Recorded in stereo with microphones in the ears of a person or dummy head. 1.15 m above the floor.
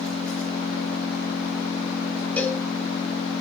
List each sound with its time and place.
0.0 s an engine running: 5° left (ahead or behind), 8 m
2.4 s a cowbell: 10° left (ahead or behind), 1.6 m